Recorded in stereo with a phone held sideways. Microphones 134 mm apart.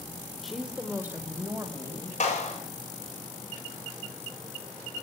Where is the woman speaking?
Centre (ahead or behind), 1.0 m; by 2.1 s 25° right (ahead or behind), 2 m.